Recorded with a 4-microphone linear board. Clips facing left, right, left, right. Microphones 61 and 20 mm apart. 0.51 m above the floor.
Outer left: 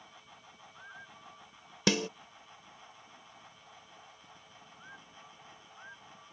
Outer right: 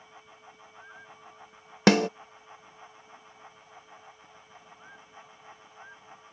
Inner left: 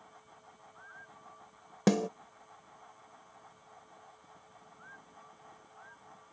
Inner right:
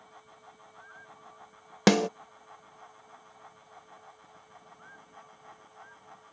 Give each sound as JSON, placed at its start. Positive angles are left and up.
{"t": 1.9, "sound": "a snare drum", "side_deg": -55}